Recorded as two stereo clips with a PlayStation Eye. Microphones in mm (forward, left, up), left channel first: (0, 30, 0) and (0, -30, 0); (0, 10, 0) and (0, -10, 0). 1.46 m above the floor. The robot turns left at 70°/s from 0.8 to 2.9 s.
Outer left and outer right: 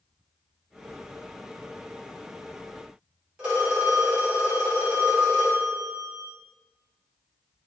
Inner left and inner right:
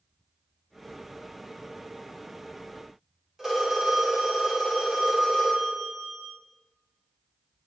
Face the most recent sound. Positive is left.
turn(degrees=-20)  # may be behind; listen again after turning